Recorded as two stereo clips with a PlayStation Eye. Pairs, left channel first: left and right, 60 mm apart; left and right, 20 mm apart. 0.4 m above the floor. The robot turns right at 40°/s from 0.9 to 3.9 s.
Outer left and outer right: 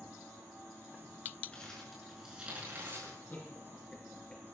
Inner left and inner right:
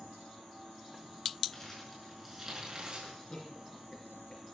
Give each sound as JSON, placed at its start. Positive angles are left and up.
{"t": 1.5, "sound": "crumpling", "side_deg": 15, "distance_m": 6.0}
{"t": 3.0, "sound": "laughter", "side_deg": 45, "distance_m": 5.0}